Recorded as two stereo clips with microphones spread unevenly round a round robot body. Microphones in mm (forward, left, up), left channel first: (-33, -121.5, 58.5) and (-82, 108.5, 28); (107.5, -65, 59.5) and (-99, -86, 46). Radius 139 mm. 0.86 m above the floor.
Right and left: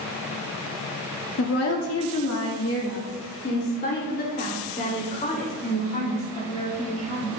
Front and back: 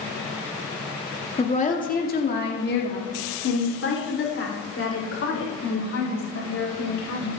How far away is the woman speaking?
About 2.0 m.